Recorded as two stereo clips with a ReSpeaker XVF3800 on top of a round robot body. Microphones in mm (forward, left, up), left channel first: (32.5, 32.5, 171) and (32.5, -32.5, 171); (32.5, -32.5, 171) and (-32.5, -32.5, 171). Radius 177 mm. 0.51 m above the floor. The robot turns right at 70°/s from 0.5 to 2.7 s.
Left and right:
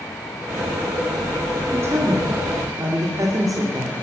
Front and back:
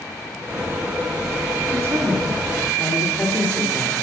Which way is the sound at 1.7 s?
145° right.